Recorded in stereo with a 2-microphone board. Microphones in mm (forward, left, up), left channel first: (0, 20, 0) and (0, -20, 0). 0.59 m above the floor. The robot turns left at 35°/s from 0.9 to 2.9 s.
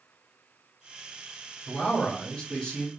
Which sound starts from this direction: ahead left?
A man speaking, at 1.7 s.